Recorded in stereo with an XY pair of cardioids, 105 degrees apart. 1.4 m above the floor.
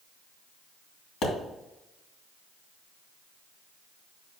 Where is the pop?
55° left, 2.5 m.